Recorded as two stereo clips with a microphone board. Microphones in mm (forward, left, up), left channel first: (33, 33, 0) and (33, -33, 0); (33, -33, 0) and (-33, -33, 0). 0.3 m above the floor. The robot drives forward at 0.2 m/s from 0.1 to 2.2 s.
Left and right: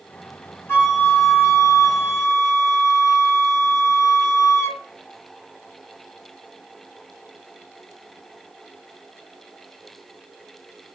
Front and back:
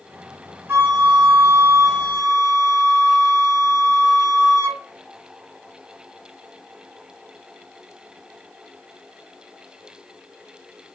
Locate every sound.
0.7 s a flute: 135° left, 2.5 m; by 4.8 s 140° left, 3 m